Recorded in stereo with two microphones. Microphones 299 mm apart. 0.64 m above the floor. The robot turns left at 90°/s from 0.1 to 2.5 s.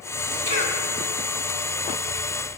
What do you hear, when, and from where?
0.5 s a cough: 50° right (ahead or behind), 2.5 m; by 0.8 s 25° right (ahead or behind), 2.5 m